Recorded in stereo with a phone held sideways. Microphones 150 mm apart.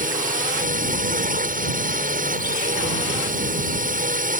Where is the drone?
65° right (ahead or behind).